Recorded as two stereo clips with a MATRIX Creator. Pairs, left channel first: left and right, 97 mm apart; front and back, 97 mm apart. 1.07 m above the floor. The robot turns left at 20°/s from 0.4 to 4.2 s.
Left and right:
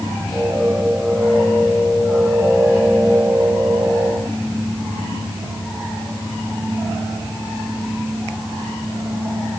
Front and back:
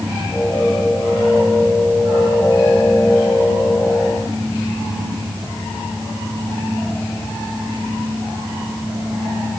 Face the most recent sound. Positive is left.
No sound to turn to.